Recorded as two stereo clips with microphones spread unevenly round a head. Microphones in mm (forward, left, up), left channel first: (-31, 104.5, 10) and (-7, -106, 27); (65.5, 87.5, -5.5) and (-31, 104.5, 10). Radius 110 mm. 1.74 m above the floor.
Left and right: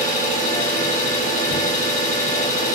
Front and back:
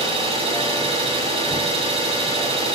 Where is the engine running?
155° left, 6 m.